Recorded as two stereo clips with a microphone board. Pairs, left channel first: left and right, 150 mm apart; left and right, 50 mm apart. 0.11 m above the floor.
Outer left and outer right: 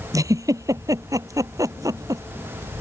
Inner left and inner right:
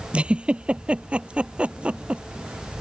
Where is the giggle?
25° right (ahead or behind).